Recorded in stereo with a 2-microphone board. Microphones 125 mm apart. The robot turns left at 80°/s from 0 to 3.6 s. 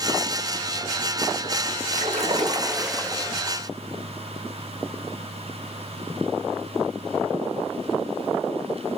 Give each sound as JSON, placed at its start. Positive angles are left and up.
{"t": 1.9, "sound": "a splash", "azimuth_deg": -100, "distance_m": 1.2}